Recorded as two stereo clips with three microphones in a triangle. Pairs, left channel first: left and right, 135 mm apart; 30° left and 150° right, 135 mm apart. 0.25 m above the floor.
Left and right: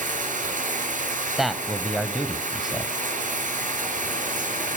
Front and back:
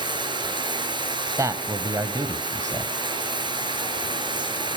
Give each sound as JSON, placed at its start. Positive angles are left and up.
{"t": 0.0, "sound": "running water", "azimuth_deg": -95, "distance_m": 4.0}
{"t": 1.4, "sound": "a man speaking", "azimuth_deg": -175, "distance_m": 1.3}